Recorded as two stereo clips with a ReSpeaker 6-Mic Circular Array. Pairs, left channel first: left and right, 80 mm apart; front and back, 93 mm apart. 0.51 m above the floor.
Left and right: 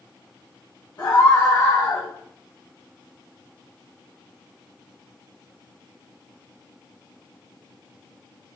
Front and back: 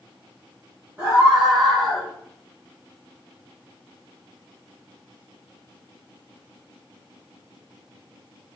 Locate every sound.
1.0 s a scream: 120° left, 2.5 m; by 2.1 s 85° left, 1.9 m